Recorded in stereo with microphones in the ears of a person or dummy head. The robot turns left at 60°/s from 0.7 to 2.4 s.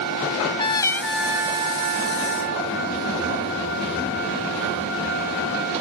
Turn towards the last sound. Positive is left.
turn(degrees=-75)